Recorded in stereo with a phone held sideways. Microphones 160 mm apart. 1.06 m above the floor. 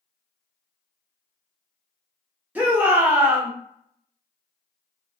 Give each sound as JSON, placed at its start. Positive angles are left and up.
{"t": 2.5, "sound": "a shout", "side_deg": -10, "distance_m": 1.0}